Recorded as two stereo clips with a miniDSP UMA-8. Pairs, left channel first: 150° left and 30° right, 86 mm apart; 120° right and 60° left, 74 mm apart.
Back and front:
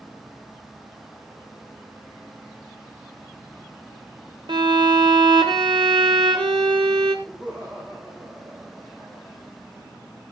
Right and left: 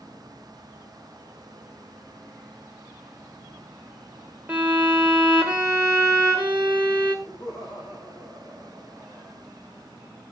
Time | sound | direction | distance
4.5 | a violin | 10° right | 2 m
7.2 | laughter | 105° right | 5.5 m